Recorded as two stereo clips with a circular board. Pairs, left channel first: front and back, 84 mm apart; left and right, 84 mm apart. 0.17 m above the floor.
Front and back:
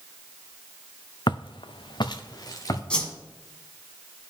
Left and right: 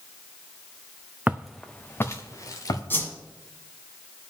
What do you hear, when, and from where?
1.3 s footsteps: 20° right, 0.6 m; by 2.8 s 45° left, 1.6 m
2.9 s a whoosh: 65° left, 1.4 m